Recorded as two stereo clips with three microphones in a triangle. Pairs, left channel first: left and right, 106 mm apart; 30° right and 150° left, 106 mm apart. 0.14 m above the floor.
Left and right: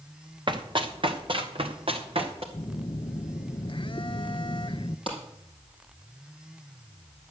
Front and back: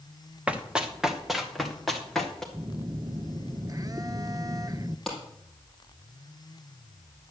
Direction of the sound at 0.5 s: 130° right.